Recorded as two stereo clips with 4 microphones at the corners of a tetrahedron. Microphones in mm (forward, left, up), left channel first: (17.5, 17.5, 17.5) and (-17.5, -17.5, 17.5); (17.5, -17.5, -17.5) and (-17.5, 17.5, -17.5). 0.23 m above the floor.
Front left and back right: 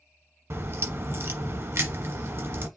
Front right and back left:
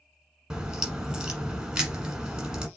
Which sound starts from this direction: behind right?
A crack, at 0.5 s.